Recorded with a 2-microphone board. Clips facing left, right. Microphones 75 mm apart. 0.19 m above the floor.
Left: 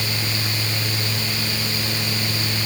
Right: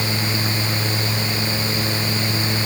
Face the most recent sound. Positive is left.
No sound to turn to.